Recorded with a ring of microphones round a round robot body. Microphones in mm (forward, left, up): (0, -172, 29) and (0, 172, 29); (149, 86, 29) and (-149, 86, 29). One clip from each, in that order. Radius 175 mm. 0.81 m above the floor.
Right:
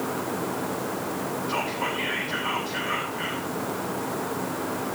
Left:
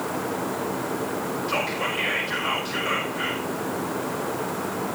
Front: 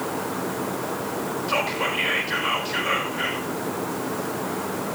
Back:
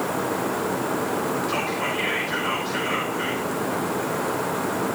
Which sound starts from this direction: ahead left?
Whispering, at 1.5 s.